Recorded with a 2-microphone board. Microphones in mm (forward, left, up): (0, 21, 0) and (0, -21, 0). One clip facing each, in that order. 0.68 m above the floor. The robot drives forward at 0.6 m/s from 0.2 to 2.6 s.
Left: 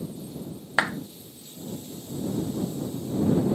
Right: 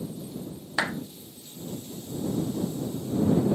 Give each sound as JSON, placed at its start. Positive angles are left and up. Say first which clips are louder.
{"t": 0.8, "sound": "a clap", "louder": "left 3 dB", "side_deg": 25, "distance_m": 0.9}